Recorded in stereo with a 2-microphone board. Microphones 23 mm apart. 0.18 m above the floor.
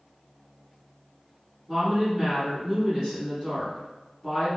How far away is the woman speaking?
About 1.3 m.